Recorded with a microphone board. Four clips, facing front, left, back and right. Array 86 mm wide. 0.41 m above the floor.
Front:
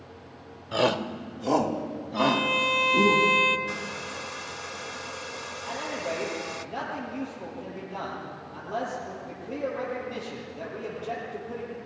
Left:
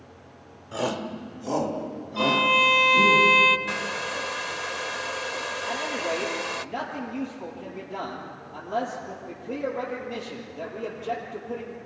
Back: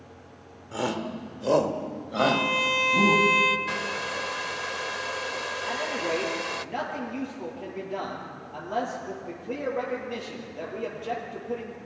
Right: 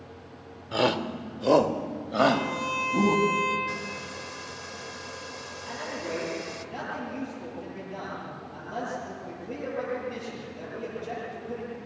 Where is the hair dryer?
130° left, 0.5 m.